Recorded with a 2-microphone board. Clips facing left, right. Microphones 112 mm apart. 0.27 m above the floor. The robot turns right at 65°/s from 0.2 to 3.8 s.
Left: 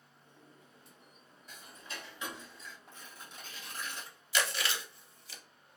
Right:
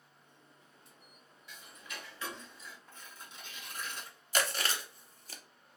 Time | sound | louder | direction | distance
1.5 | ticking | left 1 dB | 110° left | 0.7 m
2.9 | tearing paper | left 1 dB | 80° left | 1.7 m
4.3 | chewing | even | 45° right (ahead or behind) | 0.5 m